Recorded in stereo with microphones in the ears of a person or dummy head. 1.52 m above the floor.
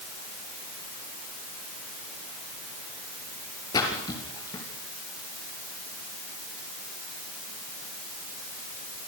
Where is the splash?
25° left (ahead or behind), 5 m.